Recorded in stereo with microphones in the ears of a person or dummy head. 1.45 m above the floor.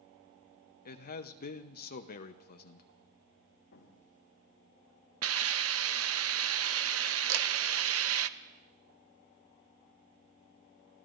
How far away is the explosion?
About 1.6 m.